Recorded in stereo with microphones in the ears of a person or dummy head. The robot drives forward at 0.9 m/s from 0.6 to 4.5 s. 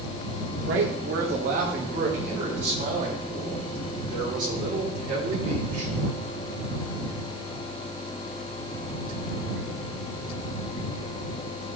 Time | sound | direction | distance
0.7 | a man speaking | 70° right (ahead or behind) | 2 m